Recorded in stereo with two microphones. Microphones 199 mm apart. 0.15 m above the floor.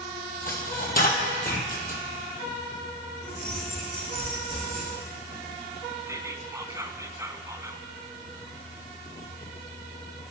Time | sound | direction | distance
0.5 | a dropped coin | 50° left (ahead or behind) | 2.5 m
3.2 | keys jangling | 60° right (ahead or behind) | 6 m
6.1 | whispering | 15° right (ahead or behind) | 1.0 m